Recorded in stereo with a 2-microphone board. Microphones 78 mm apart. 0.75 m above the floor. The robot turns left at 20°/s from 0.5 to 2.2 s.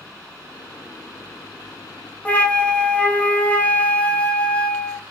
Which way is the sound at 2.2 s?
20° left (ahead or behind).